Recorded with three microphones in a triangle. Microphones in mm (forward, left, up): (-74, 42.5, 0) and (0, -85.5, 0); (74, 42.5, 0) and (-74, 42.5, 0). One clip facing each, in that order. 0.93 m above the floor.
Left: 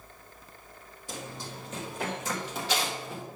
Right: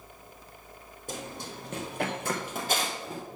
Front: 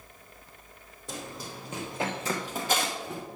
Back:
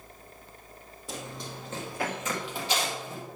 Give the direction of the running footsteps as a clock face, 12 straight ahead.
3 o'clock.